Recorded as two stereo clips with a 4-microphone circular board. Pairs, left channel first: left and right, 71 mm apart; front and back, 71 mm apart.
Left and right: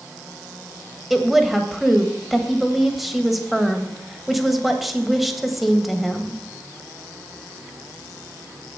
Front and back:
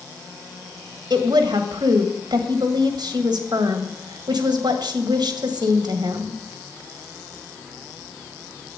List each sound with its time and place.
1.1 s a woman speaking: straight behind, 1.6 m